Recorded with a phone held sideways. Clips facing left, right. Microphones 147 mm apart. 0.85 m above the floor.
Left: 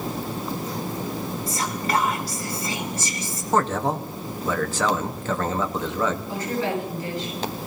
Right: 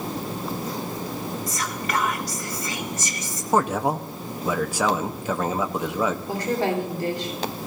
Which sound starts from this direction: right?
A woman speaking, at 6.3 s.